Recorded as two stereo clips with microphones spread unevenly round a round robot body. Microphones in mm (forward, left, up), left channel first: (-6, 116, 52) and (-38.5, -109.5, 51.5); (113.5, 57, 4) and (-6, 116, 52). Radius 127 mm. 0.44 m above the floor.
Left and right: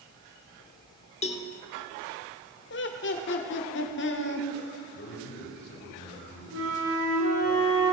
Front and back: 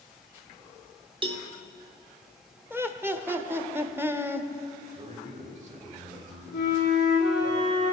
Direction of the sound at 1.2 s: 105° left.